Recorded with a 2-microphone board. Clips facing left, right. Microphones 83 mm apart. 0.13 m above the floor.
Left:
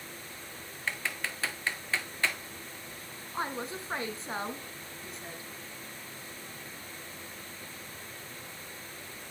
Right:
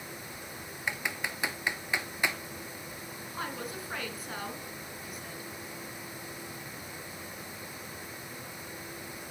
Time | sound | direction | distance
0.9 | typing on a keyboard | 15° right (ahead or behind) | 0.7 m
3.3 | a woman speaking | 30° left (ahead or behind) | 1.5 m